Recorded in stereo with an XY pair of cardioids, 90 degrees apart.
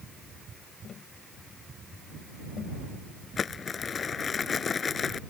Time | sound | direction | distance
0.8 | tapping | 60° left | ?
3.4 | crumpling | 45° left | ?